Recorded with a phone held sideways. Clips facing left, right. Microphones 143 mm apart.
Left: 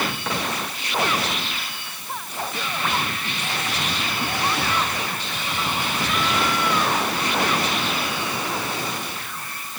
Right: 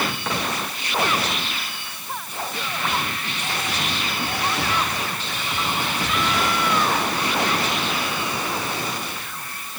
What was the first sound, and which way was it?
Only background noise.